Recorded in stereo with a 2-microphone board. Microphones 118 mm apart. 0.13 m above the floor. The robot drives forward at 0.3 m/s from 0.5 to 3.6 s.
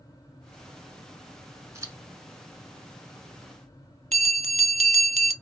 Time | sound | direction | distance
1.8 | scissors | 25° right (ahead or behind) | 1.1 m
4.1 | a bell | 80° right | 0.6 m